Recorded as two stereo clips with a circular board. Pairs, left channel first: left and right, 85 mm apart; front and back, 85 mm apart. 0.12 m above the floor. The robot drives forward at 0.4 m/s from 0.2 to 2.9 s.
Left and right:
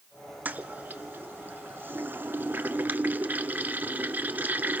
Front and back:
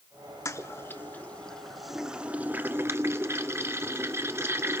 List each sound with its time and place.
0.5 s a toilet flushing: 30° right, 0.9 m; by 4.8 s 145° right, 0.9 m